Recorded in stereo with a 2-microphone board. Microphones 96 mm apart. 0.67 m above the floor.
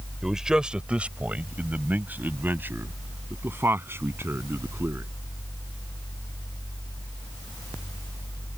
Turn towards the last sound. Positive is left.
turn(degrees=-25)  # may be behind; listen again after turning